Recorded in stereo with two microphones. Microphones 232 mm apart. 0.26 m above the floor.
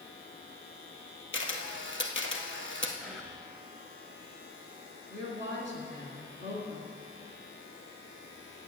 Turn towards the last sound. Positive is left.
turn(degrees=60)  # may be behind; listen again after turning